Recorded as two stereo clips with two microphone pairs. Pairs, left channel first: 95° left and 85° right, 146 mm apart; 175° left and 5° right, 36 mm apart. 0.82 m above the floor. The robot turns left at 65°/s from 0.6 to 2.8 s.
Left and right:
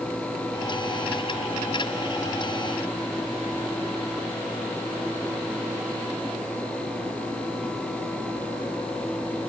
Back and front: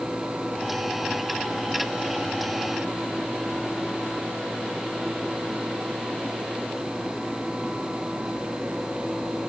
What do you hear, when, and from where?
Only background noise.